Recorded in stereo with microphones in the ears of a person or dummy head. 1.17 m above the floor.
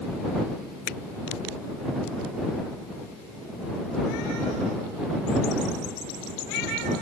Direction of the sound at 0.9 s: 55° left (ahead or behind).